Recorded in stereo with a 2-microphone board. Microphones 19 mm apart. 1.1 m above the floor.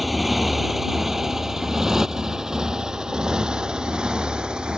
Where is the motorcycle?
Centre (ahead or behind); by 4.8 s 50° right (ahead or behind).